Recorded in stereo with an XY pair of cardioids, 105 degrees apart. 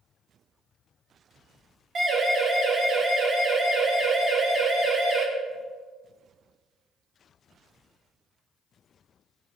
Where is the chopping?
No chopping in this recording.